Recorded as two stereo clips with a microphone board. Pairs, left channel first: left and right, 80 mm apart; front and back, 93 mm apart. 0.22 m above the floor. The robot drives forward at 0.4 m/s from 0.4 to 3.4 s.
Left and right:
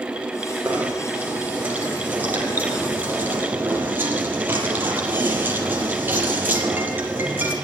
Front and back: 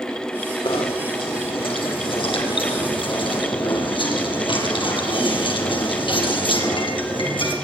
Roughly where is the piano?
No piano in this recording.